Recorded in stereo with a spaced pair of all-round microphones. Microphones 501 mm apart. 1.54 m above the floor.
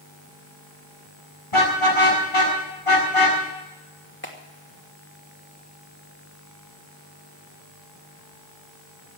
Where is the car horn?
70° left (ahead or behind), 7.5 m; by 3.4 s 75° left (ahead or behind), 7 m.